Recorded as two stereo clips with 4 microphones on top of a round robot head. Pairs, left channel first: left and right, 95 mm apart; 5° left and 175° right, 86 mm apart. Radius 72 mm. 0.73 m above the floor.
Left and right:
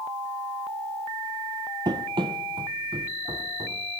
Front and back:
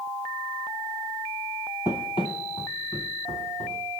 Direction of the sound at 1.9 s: 60° right.